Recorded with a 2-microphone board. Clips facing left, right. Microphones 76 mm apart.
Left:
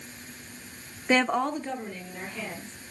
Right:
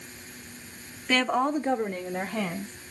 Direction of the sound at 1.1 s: 20° left (ahead or behind).